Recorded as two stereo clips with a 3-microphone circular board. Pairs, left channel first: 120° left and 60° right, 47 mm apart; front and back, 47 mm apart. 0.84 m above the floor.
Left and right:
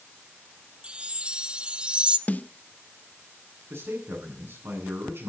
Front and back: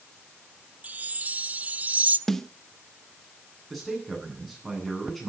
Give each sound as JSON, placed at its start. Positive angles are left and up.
{"t": 0.8, "sound": "a chime", "azimuth_deg": -125, "distance_m": 0.8}
{"t": 2.3, "sound": "a snare drum", "azimuth_deg": 75, "distance_m": 0.8}
{"t": 3.7, "sound": "a man speaking", "azimuth_deg": -90, "distance_m": 9.5}